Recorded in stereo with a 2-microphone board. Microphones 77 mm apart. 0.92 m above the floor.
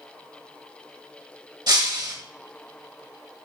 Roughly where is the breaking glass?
Right.